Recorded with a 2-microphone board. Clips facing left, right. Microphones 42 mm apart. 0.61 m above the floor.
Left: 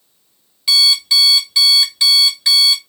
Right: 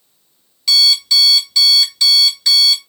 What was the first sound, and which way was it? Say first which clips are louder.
An alarm clock: even; 20° left (ahead or behind).